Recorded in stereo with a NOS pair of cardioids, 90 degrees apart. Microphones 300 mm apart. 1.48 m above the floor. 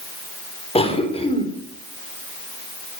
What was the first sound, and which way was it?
A cough, 20° left.